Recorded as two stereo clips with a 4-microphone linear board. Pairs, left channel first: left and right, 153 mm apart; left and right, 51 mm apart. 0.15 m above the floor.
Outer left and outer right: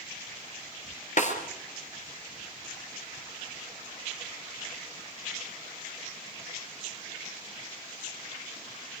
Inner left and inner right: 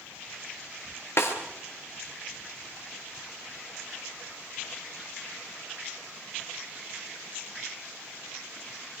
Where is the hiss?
I don't hear a hiss.